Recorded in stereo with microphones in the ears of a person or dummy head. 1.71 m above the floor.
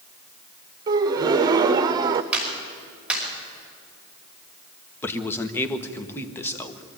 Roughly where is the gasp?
Right.